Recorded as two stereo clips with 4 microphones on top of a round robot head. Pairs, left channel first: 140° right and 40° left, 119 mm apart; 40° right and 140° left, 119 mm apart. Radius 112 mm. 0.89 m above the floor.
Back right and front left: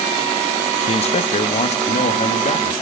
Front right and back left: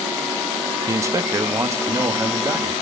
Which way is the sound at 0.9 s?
160° right.